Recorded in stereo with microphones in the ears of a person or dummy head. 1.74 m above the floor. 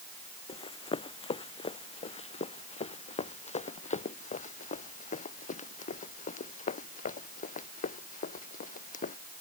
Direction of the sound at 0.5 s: 30° left (ahead or behind).